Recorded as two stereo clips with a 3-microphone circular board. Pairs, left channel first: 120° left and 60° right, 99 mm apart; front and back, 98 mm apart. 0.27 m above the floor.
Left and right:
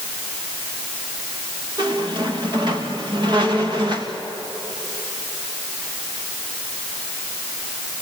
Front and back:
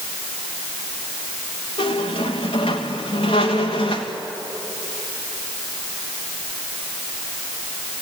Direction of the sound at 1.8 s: 20° right.